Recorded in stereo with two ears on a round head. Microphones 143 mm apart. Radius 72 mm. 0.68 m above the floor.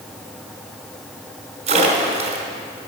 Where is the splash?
40° right (ahead or behind), 1.6 m.